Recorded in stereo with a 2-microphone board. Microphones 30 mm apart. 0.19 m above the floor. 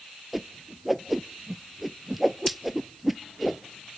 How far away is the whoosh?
About 0.5 m.